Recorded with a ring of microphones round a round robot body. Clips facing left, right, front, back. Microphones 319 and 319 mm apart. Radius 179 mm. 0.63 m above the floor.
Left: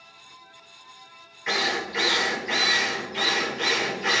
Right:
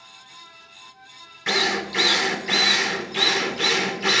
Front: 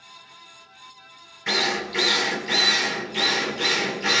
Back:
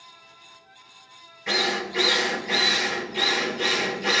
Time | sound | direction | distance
1.5 | a drill | 65° right | 2.5 m